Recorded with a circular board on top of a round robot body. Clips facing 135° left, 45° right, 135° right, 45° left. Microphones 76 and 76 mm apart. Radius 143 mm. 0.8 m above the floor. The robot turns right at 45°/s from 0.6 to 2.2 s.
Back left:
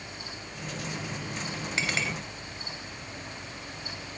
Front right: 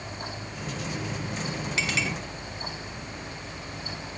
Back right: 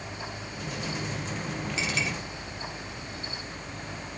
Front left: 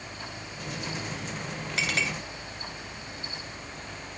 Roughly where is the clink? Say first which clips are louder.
Front right 1 dB, front left 2 dB; left.